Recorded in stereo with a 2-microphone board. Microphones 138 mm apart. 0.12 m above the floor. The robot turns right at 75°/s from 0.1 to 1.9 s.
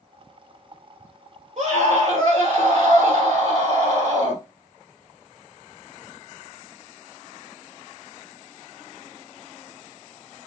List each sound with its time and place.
1.6 s a scream: 60° right (ahead or behind), 3.5 m; by 4.4 s 45° right (ahead or behind), 3.5 m